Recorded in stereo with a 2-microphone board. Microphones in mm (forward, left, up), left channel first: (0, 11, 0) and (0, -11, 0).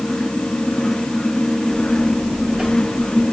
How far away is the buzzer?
About 9 m.